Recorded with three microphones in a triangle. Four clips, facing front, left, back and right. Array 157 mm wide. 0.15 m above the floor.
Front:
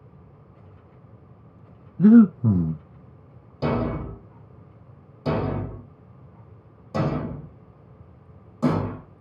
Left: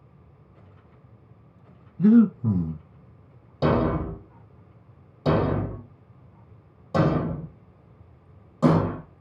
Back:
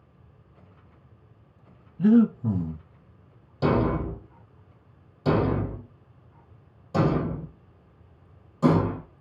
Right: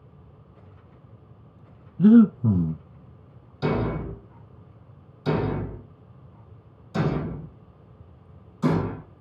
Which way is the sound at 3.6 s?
85° left.